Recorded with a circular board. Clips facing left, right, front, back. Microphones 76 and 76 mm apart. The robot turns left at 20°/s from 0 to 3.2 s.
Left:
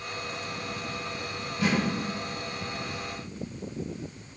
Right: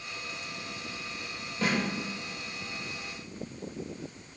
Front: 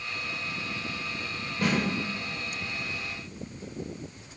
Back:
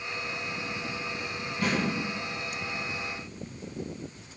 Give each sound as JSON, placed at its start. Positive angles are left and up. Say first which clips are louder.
{"t": 1.6, "sound": "a snare drum", "louder": "left 3 dB, front 2 dB", "azimuth_deg": -35, "distance_m": 1.7}